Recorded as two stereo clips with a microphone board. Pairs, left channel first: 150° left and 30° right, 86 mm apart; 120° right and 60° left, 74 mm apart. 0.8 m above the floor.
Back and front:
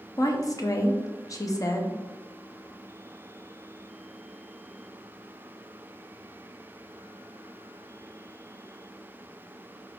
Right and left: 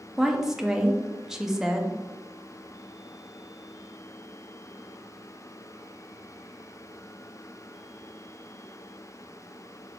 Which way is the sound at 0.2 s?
140° left.